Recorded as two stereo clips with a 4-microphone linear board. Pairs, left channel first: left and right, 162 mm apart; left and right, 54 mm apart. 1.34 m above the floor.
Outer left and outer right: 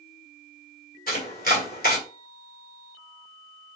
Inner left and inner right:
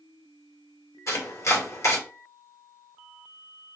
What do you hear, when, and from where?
1.1 s chopping: 60° left (ahead or behind), 1.7 m